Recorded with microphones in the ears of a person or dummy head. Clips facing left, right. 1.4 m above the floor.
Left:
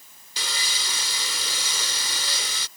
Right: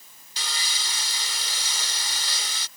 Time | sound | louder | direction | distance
0.4 | sawing | left 2 dB | 70° left (ahead or behind) | ?